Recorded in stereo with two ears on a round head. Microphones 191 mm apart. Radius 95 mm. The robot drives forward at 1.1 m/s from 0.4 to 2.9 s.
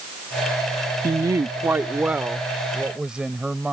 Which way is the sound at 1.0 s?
15° right (ahead or behind).